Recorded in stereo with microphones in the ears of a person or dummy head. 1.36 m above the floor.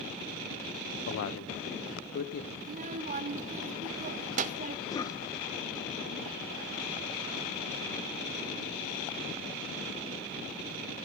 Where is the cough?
20° left (ahead or behind), 1.5 m.